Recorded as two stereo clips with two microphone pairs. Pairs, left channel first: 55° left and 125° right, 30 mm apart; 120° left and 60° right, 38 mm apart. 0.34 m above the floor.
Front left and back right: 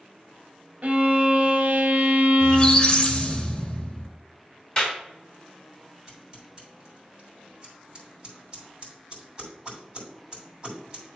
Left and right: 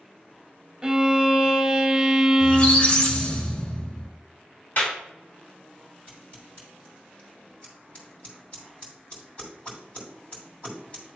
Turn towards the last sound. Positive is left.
turn(degrees=170)